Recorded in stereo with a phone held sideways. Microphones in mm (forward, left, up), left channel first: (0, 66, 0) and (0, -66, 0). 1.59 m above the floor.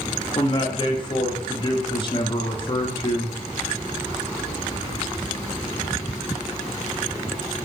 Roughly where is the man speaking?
Left.